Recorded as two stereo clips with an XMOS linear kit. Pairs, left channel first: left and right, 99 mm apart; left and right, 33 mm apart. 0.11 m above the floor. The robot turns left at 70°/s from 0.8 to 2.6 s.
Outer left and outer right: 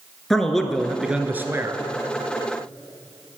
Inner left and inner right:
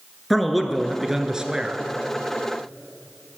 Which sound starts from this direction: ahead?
A man speaking, at 0.3 s.